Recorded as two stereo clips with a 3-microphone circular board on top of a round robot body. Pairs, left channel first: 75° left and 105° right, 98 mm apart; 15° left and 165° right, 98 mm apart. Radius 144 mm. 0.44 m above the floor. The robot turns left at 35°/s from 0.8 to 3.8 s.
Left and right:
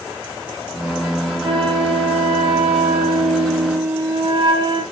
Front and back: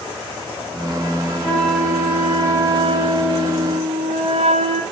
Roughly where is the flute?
Right.